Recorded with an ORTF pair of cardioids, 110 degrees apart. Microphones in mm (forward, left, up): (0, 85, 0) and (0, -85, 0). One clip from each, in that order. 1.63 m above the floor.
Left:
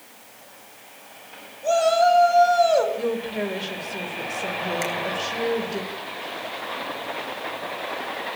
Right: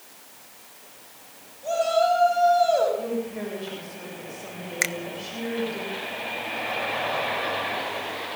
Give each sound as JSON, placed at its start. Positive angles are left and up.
{"t": 1.6, "sound": "a shout", "azimuth_deg": 45, "distance_m": 9.5}
{"t": 3.0, "sound": "a woman speaking", "azimuth_deg": 55, "distance_m": 8.0}
{"t": 4.8, "sound": "a finger snap", "azimuth_deg": -45, "distance_m": 1.4}